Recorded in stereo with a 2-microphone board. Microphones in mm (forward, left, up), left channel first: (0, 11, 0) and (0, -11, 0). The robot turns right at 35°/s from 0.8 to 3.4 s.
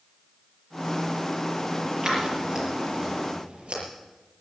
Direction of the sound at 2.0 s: 20° right (ahead or behind).